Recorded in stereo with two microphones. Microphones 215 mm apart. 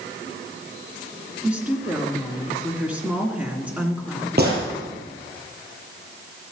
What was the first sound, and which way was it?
A woman speaking, 5° right (ahead or behind).